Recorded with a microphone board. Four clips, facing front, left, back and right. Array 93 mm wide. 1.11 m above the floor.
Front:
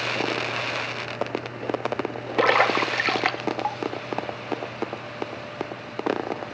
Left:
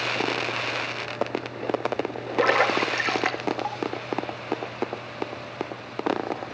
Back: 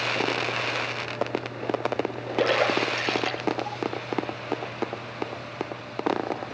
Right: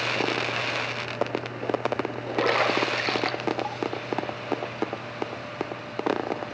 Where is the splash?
15° left, 2.5 m.